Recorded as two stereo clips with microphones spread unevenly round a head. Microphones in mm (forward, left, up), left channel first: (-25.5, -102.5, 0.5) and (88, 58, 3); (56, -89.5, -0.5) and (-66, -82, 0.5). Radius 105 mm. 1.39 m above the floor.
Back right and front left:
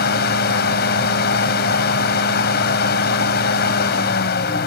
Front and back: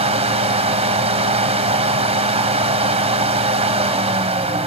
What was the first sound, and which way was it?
A fan, 160° right.